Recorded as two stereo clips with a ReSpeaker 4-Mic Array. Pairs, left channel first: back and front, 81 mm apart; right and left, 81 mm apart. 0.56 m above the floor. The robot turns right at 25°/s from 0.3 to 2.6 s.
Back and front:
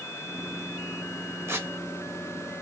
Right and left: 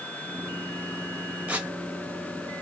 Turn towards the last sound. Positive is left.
turn(degrees=55)